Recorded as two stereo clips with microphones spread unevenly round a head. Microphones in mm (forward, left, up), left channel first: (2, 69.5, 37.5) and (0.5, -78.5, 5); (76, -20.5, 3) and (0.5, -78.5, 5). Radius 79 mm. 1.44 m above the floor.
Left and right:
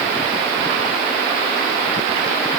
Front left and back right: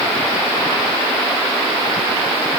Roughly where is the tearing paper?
No tearing paper in this recording.